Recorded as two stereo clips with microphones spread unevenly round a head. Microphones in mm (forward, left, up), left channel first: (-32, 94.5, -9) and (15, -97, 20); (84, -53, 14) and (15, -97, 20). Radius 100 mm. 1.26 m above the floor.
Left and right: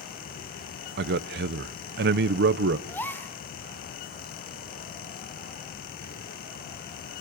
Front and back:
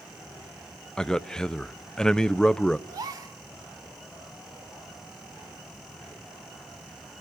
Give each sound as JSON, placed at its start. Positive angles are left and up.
{"t": 1.0, "sound": "a man speaking", "azimuth_deg": -45, "distance_m": 0.8}
{"t": 2.9, "sound": "a gasp", "azimuth_deg": -170, "distance_m": 1.2}